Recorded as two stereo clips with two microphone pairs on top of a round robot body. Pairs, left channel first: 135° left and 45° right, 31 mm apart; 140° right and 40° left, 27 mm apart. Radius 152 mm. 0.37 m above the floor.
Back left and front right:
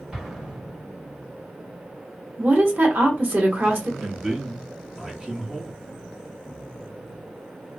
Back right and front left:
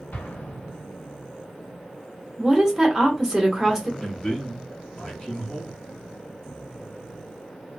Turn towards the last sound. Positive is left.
turn(degrees=-100)